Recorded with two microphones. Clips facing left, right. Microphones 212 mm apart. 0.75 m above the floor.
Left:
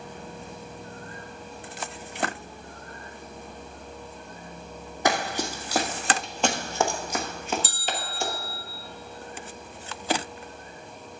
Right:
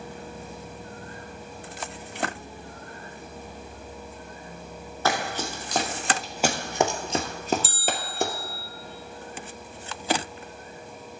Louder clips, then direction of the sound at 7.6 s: Right 2 dB; centre (ahead or behind).